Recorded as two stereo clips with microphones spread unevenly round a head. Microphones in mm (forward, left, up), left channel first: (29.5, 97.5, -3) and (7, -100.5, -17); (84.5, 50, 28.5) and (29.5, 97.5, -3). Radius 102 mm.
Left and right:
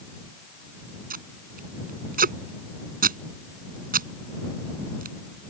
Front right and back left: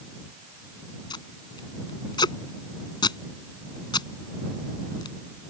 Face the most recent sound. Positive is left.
turn(degrees=-50)